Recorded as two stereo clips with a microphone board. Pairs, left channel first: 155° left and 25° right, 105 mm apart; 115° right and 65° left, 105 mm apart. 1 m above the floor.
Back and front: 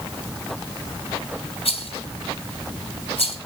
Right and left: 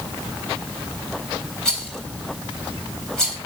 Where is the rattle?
165° left, 3 m.